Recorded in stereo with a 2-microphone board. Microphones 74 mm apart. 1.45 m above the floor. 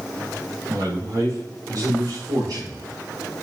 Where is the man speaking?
50° right (ahead or behind), 1.6 m; by 3.3 s 60° right (ahead or behind), 4.5 m.